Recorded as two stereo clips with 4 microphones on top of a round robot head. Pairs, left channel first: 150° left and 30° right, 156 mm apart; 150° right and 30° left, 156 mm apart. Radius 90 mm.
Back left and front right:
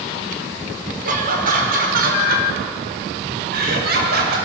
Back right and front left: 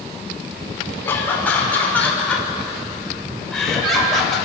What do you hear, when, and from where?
1.0 s laughter: 70° right, 5 m; by 4.4 s 60° right, 7 m